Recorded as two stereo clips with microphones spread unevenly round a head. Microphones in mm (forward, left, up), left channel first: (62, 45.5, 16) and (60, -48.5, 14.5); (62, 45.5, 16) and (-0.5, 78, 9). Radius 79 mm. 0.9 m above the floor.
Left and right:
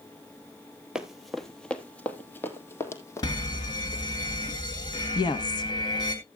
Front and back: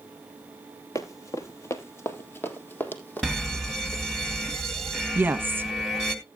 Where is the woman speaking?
105° left, 1.0 m.